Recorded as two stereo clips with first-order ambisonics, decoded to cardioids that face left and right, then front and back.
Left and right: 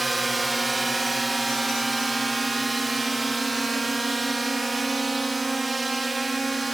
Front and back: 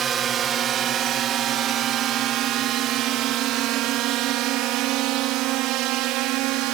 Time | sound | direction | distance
0.0 | a drone | 165° right | ?